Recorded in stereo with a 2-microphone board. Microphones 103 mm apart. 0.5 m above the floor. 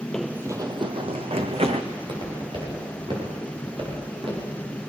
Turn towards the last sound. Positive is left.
turn(degrees=-55)  # may be behind; listen again after turning